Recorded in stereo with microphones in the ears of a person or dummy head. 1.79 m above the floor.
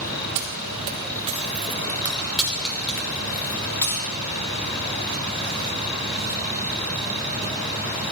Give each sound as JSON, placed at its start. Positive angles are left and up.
{"t": 0.3, "sound": "keys jangling", "side_deg": -50, "distance_m": 1.3}